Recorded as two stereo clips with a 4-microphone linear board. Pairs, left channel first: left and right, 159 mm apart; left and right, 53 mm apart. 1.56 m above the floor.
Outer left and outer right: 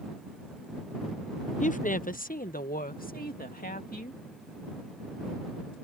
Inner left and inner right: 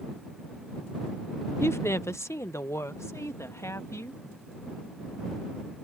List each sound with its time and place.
1.6 s a woman speaking: 50° left (ahead or behind); by 4.2 s 65° left (ahead or behind)